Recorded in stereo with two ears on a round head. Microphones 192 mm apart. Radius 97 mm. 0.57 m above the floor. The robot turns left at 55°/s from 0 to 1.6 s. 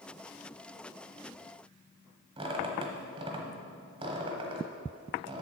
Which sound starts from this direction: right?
A squeak, at 2.4 s.